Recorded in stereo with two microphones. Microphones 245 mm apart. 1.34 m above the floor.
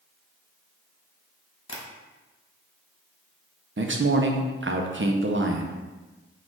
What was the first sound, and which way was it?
Tapping, 60° left (ahead or behind).